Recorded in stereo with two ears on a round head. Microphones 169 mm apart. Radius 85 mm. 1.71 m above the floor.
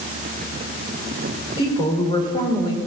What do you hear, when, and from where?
1.6 s a woman speaking: 25° left (ahead or behind), 5 m